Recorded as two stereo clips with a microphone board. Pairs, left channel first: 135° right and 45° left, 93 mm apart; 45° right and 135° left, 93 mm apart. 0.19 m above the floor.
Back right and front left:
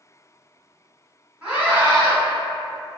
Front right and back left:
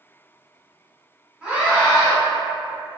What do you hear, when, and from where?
1.4 s a scream: 85° left, 1.5 m